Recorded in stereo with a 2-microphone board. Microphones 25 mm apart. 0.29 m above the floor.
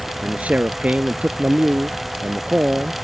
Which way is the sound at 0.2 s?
70° right (ahead or behind).